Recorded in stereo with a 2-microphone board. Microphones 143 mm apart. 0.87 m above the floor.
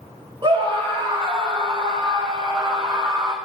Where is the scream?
35° right (ahead or behind), 3.5 m; by 3.4 s 25° right (ahead or behind), 1.7 m.